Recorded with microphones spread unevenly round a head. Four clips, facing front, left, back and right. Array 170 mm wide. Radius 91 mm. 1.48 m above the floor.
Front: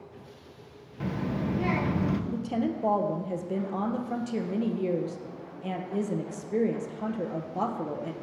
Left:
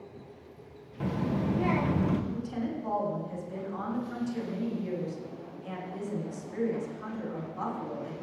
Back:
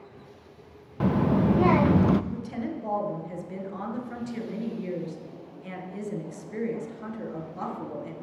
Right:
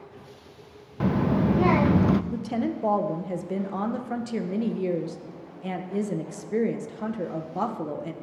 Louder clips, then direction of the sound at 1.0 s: Right 7 dB, back 8 dB; 140° right.